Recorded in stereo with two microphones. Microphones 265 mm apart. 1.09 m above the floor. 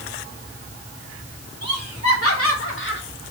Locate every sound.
1.6 s laughter: 65° left (ahead or behind), 3.5 m; by 3.0 s 40° left (ahead or behind), 1.7 m